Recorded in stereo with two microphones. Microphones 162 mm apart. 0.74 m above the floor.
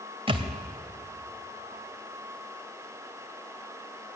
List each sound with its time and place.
0.3 s a thud: 35° right (ahead or behind), 1.8 m